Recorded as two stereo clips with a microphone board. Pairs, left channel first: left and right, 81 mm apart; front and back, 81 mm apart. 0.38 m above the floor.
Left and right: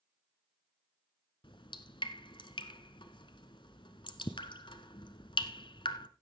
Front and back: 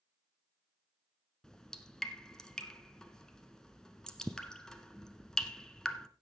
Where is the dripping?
80° left, 1.1 m.